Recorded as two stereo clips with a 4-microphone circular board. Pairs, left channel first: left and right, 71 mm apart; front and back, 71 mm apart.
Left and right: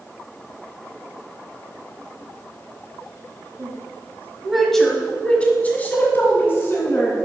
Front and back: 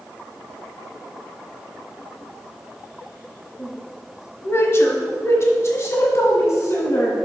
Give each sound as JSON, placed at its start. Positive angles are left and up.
{"t": 3.6, "sound": "a woman speaking", "azimuth_deg": -45, "distance_m": 1.1}